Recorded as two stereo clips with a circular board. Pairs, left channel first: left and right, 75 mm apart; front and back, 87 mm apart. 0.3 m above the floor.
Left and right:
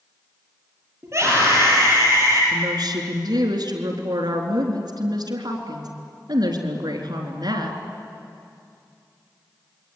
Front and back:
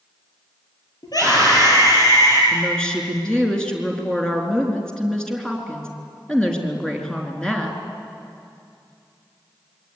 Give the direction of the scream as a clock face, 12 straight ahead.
1 o'clock.